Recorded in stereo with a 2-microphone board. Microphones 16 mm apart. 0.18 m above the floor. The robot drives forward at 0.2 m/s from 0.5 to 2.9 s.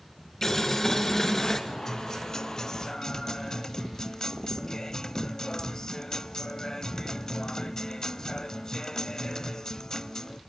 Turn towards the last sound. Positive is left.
turn(degrees=35)  # may be behind; listen again after turning